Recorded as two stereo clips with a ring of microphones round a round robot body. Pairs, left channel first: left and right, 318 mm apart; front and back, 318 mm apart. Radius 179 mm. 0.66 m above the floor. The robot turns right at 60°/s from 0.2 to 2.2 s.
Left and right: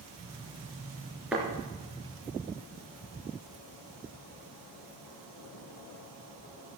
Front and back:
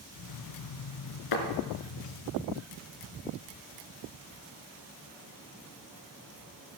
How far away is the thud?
About 2.5 m.